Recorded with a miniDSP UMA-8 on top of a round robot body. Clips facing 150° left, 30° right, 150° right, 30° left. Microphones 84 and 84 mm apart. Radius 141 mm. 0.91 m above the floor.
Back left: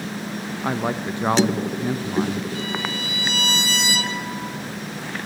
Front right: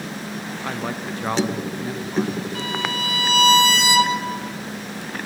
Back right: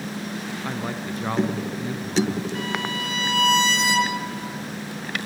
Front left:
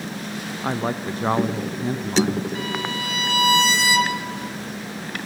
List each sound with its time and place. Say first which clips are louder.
0.6 s a man speaking: back left 5 dB, front left 8 dB; 85° left, 0.8 m
2.5 s a violin: front right 1 dB, even; 55° right, 2 m